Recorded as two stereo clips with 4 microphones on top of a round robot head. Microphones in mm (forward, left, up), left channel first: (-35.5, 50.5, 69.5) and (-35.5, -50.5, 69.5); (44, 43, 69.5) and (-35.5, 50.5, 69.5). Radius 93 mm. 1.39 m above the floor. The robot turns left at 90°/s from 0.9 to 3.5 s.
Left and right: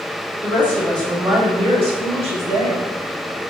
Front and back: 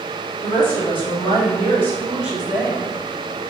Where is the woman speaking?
15° left, 1.6 m; by 2.9 s 160° right, 1.6 m.